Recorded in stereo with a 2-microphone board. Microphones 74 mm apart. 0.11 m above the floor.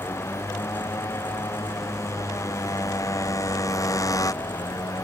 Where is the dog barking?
No dog barking in this recording.